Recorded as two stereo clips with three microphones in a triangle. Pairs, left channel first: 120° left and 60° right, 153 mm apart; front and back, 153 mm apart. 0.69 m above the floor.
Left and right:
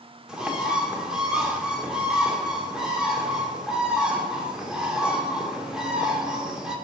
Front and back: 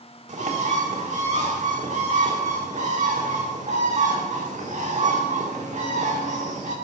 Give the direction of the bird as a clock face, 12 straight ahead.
5 o'clock.